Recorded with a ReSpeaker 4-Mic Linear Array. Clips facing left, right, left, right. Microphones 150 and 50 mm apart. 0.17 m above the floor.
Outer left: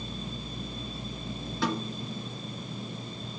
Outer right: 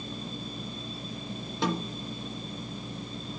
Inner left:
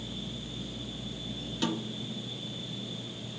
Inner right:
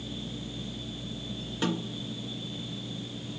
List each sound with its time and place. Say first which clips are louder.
1.6 s a snare drum: outer right 1 dB, inner right 2 dB; 20° right (ahead or behind), 2.5 m